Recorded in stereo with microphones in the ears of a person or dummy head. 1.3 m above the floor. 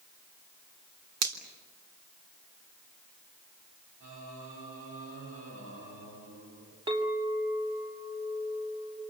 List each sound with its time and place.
1.2 s a finger snap: 85° right, 3 m
4.0 s singing: 70° right (ahead or behind), 9.5 m
6.9 s a clink: 25° right (ahead or behind), 3.5 m